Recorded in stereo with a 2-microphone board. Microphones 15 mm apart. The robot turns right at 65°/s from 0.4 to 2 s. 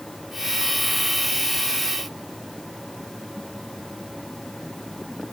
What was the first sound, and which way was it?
Only background noise.